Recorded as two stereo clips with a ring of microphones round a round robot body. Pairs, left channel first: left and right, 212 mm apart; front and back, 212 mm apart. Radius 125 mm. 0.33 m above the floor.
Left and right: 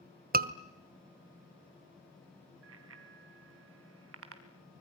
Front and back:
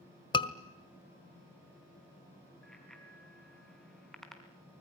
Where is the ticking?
I don't hear ticking.